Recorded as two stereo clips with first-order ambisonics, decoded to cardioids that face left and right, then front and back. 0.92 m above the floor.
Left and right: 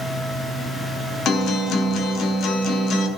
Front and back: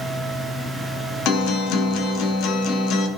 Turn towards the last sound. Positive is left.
turn(degrees=35)